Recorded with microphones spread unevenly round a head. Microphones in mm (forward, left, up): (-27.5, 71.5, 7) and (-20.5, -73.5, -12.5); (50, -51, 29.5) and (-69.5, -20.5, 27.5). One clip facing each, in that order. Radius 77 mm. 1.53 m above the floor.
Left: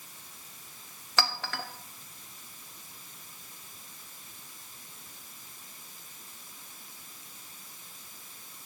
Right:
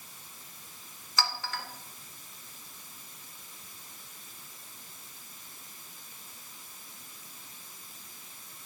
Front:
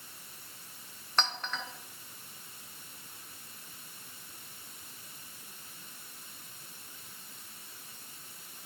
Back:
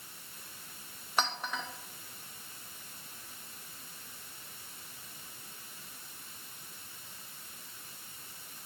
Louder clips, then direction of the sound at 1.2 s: Left 2 dB, back 1 dB; 85° left.